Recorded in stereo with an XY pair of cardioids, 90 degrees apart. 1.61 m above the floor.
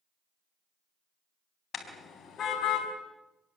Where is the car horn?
65° left, 4.5 m; by 2.9 s 80° left, 4.5 m.